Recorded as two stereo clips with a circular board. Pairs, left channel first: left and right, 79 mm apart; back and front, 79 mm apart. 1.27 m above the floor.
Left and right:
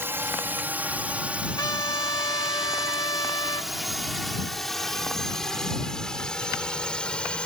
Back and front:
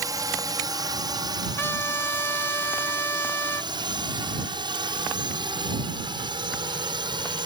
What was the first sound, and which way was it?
A drone, 35° right.